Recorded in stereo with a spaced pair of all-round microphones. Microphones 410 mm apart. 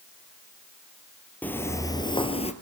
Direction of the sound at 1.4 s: 5° left (ahead or behind).